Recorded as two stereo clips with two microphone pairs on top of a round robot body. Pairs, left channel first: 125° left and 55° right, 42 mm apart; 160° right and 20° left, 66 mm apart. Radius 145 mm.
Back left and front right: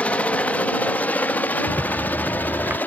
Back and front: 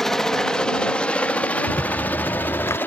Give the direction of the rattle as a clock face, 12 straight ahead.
4 o'clock.